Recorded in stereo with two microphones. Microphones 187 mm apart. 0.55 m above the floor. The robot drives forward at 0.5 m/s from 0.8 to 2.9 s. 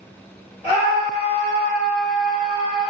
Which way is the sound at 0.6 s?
35° left (ahead or behind).